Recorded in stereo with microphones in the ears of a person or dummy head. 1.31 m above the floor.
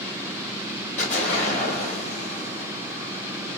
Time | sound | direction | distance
1.0 | an explosion | 45° left (ahead or behind) | 3 m